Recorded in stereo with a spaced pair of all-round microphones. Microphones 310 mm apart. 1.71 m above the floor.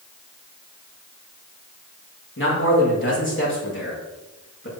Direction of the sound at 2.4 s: 40° left (ahead or behind).